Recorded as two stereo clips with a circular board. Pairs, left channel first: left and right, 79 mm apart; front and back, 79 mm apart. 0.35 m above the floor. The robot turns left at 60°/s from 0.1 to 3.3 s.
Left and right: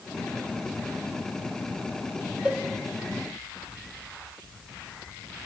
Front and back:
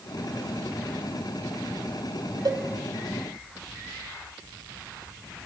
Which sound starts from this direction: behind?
A cowbell, at 2.5 s.